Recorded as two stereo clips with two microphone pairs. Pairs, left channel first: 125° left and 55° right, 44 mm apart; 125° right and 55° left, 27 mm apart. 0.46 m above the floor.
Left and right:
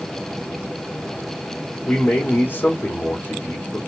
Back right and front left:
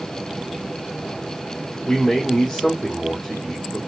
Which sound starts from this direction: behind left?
A man speaking, at 1.9 s.